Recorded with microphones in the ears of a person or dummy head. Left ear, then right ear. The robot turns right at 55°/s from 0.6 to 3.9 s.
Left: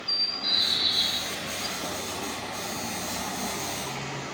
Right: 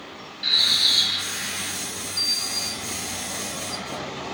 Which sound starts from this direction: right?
A bird, at 0.4 s.